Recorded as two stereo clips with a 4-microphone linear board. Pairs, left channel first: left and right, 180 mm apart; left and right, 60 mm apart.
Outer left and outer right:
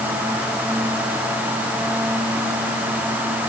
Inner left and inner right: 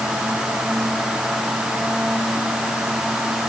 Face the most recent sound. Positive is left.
No sound to turn to.